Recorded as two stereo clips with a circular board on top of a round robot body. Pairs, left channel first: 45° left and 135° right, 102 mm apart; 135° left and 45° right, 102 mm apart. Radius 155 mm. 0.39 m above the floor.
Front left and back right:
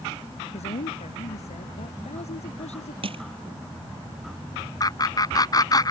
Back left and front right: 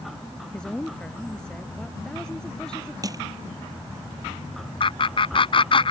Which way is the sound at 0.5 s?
50° left.